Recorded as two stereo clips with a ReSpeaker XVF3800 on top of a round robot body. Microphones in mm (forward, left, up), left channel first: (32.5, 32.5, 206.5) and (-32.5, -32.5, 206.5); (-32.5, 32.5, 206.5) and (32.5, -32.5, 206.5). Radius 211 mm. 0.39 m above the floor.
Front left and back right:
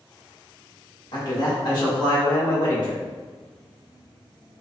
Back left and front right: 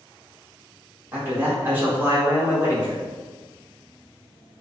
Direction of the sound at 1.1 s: 20° left.